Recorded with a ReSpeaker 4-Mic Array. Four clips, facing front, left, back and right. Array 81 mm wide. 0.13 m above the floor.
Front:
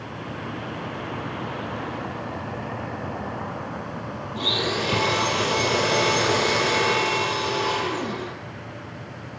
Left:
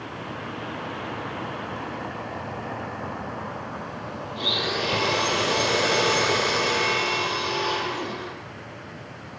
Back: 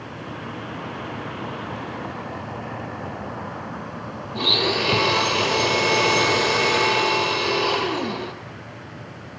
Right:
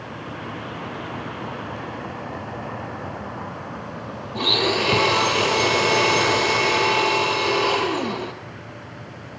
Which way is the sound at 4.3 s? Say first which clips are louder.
Right 7 dB, back 3 dB; 125° right.